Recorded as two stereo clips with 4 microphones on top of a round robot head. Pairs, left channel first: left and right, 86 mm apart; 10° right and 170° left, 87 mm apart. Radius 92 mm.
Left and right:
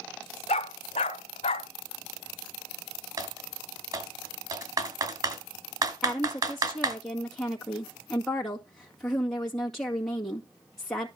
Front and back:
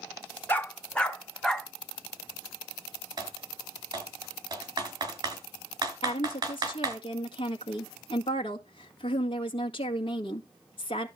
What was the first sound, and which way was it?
A dog barking, 60° left.